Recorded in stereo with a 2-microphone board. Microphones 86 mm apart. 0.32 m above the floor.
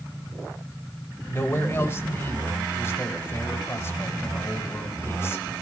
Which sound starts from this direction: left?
A man speaking, at 1.3 s.